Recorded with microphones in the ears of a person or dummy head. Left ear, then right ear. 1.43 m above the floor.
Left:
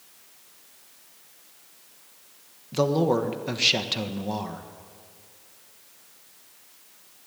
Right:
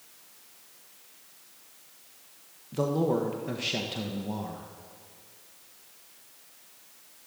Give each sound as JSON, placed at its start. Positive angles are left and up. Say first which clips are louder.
{"t": 2.7, "sound": "a man speaking", "louder": "left 5 dB", "side_deg": 35, "distance_m": 1.4}